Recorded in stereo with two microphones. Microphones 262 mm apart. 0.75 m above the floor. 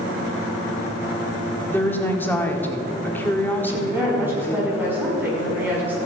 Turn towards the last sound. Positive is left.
turn(degrees=-10)  # may be behind; listen again after turning